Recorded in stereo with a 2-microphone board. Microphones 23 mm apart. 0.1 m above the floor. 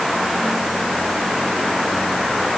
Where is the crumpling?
I don't hear crumpling.